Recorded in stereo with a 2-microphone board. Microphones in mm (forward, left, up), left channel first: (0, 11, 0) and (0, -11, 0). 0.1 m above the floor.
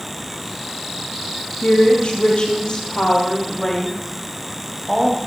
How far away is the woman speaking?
About 3.5 m.